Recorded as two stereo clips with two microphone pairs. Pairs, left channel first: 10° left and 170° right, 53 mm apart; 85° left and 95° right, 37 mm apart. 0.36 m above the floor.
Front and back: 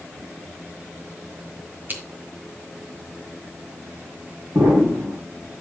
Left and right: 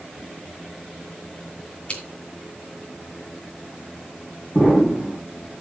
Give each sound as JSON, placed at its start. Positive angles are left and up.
{"t": 1.9, "sound": "scissors", "azimuth_deg": 145, "distance_m": 2.5}
{"t": 4.5, "sound": "an explosion", "azimuth_deg": 175, "distance_m": 7.5}